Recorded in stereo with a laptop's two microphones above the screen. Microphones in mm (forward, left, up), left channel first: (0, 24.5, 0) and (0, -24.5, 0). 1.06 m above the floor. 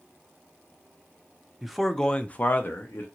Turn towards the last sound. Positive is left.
turn(degrees=50)  # may be behind; listen again after turning